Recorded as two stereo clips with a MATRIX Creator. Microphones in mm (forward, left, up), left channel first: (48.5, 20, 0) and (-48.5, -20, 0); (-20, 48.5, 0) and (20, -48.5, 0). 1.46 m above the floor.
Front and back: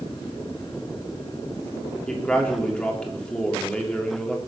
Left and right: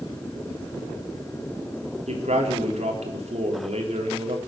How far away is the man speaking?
About 3.5 m.